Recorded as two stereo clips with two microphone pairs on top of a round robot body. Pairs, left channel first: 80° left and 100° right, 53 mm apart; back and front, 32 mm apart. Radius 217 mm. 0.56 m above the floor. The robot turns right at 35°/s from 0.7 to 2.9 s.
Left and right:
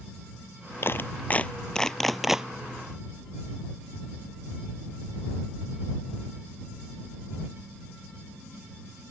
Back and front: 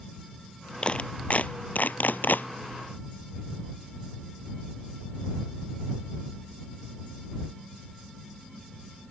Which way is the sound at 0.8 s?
125° left.